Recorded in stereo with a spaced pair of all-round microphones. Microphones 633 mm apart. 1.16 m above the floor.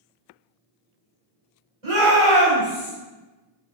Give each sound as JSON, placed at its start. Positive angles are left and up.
{"t": 1.8, "sound": "a shout", "side_deg": -60, "distance_m": 1.4}